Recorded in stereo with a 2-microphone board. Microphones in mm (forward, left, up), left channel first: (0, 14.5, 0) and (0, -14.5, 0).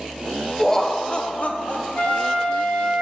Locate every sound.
0.6 s laughter: 10° left (ahead or behind), 1.2 m; by 2.5 s 75° left (ahead or behind), 2 m
1.9 s a flute: 75° left (ahead or behind), 3 m